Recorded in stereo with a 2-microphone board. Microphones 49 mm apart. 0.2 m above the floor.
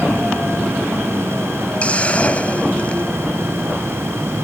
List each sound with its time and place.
1.8 s a hiss: 25° left (ahead or behind)